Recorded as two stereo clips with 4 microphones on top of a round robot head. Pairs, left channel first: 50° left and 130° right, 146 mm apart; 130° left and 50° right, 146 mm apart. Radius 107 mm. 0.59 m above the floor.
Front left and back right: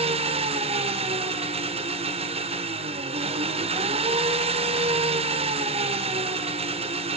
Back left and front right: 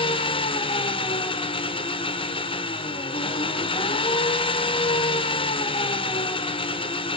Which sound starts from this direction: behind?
An engine running, at 0.0 s.